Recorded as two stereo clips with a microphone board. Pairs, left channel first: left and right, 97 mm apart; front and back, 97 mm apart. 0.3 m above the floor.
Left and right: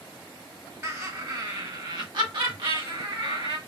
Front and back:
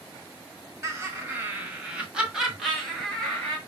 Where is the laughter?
135° right, 1.3 m; by 3.6 s 80° right, 1.8 m.